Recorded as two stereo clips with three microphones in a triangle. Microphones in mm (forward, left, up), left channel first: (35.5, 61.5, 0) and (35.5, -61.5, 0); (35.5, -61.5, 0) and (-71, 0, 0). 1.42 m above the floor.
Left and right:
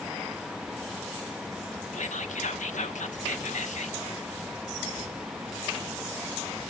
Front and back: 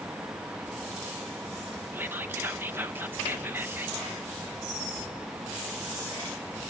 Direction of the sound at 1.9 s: 80° left.